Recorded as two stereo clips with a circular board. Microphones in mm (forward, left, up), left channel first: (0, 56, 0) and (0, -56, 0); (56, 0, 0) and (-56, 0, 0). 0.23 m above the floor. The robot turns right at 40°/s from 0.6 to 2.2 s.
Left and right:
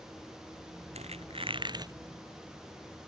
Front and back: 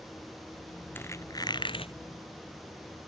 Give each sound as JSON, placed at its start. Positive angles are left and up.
{"t": 0.9, "sound": "a squeak", "azimuth_deg": -70}